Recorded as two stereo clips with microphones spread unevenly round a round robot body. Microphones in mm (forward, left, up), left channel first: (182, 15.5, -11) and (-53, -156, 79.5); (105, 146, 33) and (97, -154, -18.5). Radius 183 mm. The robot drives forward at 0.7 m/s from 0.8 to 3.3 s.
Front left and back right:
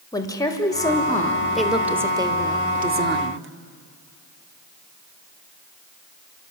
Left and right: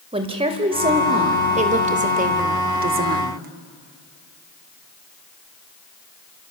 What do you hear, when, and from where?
0.1 s a woman speaking: 30° right, 2 m; by 3.5 s 95° right, 1.5 m